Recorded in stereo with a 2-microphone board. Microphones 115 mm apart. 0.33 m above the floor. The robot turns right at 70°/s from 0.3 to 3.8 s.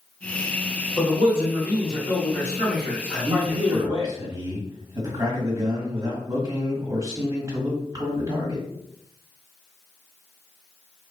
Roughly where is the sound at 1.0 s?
Left.